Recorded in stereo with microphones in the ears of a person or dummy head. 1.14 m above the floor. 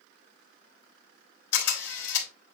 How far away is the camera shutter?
About 3.5 m.